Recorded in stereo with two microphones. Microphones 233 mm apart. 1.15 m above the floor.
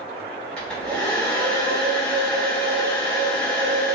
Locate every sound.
0.6 s a hair dryer: 5° left (ahead or behind), 1.5 m